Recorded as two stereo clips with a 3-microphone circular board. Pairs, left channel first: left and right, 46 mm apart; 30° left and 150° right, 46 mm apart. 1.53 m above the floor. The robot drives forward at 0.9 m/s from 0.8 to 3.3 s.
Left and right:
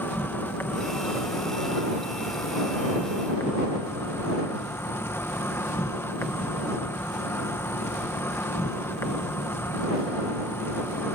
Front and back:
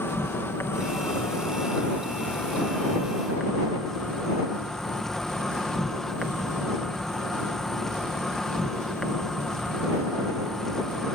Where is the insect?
55° left; by 11.2 s 110° left.